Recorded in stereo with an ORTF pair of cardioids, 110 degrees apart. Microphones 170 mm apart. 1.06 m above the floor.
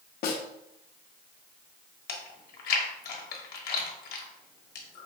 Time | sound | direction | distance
0.2 | a snare drum | 65° left | 0.8 m
2.1 | chewing | 65° left | 1.0 m